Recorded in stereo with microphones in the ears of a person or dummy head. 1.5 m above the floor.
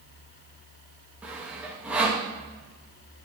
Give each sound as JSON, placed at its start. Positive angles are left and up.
{"t": 1.2, "sound": "sawing", "side_deg": -10, "distance_m": 1.3}